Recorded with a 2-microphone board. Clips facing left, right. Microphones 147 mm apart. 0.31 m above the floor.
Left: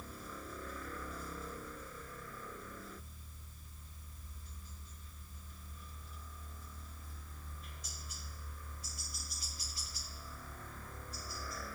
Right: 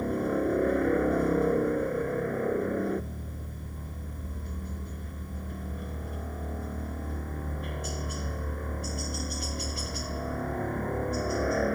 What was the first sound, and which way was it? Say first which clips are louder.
A helicopter: right 22 dB; 70° right (ahead or behind).